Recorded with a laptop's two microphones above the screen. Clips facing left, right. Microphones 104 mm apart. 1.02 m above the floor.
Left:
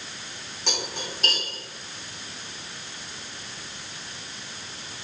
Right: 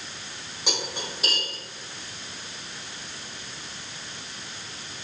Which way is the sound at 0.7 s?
10° right (ahead or behind).